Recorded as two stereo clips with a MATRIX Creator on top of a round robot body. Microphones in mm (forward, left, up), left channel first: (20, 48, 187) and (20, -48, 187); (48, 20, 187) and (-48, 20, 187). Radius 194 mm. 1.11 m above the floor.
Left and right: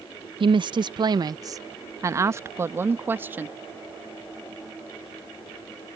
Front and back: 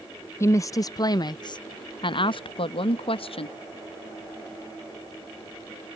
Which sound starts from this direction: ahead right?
A woman speaking, at 0.4 s.